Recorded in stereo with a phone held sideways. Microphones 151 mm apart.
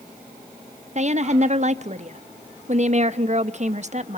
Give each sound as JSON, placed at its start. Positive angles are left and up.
{"t": 0.9, "sound": "a woman speaking", "side_deg": -50, "distance_m": 0.9}